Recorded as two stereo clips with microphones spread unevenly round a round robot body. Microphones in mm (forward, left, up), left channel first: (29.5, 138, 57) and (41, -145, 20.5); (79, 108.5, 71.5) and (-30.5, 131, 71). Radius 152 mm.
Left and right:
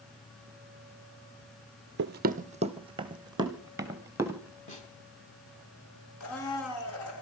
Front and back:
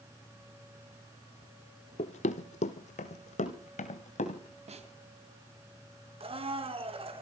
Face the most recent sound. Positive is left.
turn(degrees=135)